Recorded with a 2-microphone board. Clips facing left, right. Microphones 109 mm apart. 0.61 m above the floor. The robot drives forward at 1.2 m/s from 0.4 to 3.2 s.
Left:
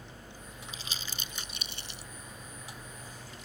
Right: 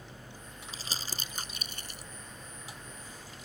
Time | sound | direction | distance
0.7 | crumpling | 35° right (ahead or behind) | ?